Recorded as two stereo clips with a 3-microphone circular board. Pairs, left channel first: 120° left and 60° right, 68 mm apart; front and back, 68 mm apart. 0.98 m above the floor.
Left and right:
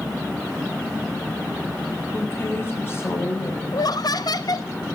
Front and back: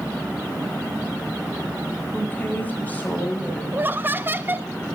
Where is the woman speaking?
65° left, 8 m.